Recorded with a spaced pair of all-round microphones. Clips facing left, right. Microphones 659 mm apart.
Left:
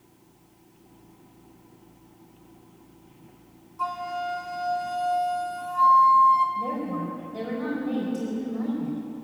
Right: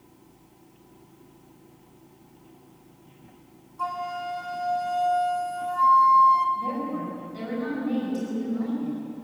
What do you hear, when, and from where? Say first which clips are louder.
3.8 s a flute: left 1 dB; 50° left (ahead or behind), 2 m
6.5 s a woman speaking: left 1 dB; 80° left, 4.5 m